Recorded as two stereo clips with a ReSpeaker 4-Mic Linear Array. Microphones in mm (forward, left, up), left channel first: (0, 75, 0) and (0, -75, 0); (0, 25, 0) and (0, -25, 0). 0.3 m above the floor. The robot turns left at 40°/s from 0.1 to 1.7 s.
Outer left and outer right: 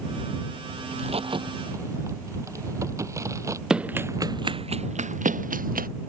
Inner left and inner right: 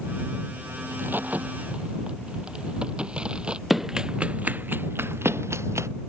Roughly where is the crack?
Right.